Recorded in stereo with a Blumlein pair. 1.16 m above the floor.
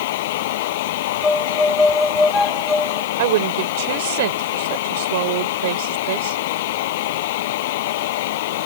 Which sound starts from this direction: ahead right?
A woman speaking, at 3.2 s.